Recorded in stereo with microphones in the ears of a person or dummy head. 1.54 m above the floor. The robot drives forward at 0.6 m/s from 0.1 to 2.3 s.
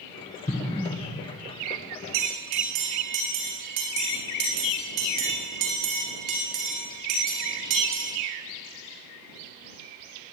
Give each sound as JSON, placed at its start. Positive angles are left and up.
{"t": 0.5, "sound": "an explosion", "side_deg": 30, "distance_m": 0.9}
{"t": 2.1, "sound": "a bell", "side_deg": -40, "distance_m": 1.6}